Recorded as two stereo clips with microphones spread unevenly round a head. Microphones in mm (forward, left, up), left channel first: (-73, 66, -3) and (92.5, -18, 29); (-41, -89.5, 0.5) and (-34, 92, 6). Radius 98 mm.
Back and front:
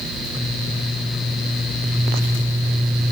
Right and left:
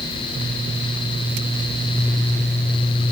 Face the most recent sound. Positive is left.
No sound to turn to.